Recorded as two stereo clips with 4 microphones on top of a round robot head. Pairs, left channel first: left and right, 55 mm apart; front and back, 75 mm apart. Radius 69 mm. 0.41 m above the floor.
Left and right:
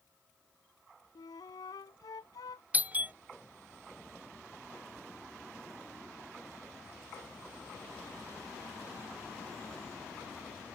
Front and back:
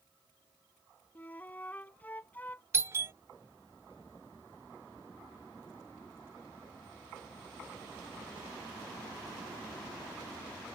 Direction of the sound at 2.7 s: 140° right.